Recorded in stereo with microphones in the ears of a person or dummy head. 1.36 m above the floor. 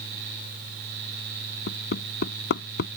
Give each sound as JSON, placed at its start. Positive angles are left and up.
{"t": 1.7, "sound": "hammering", "side_deg": 70}